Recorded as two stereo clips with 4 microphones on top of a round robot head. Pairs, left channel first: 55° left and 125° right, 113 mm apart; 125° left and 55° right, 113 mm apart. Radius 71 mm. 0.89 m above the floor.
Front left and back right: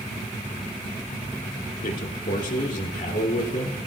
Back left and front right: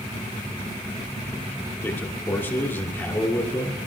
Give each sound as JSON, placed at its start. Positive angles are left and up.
{"t": 1.8, "sound": "a man speaking", "azimuth_deg": 55, "distance_m": 2.5}